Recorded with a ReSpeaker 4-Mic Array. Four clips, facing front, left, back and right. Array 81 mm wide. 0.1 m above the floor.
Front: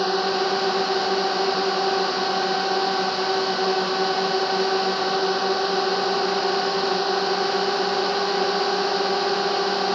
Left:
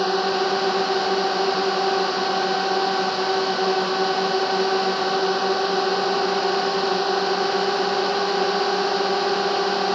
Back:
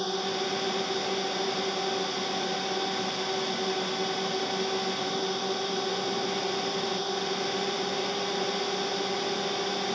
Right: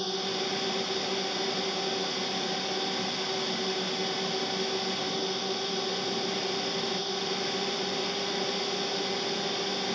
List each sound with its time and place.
0.0 s a drone: 50° left